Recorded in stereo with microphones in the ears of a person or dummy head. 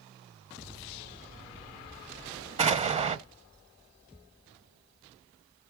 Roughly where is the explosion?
Right.